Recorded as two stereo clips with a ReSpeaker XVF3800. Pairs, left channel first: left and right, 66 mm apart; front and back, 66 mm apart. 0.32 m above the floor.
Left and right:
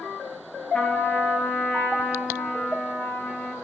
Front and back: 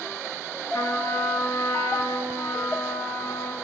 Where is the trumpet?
20° left, 3.5 m.